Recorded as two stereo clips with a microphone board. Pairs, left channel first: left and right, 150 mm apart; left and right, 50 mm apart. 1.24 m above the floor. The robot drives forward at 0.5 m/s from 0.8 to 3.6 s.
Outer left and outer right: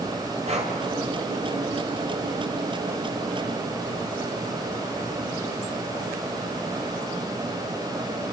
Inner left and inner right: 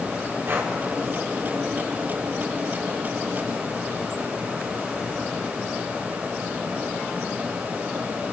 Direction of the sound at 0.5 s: 45° right (ahead or behind).